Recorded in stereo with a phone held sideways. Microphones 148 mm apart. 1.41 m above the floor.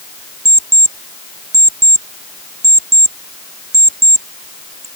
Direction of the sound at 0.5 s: 20° right (ahead or behind).